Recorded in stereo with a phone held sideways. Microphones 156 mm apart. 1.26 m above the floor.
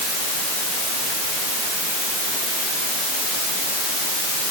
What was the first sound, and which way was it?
Only background noise.